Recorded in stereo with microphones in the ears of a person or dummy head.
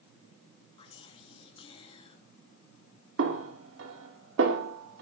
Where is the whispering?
25° left (ahead or behind), 3.5 m.